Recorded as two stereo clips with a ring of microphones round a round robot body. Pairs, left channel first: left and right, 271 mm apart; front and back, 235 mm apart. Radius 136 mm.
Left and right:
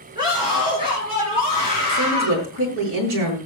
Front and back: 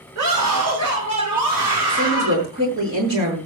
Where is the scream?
165° right, 6.5 m; by 2.4 s 160° right, 8 m.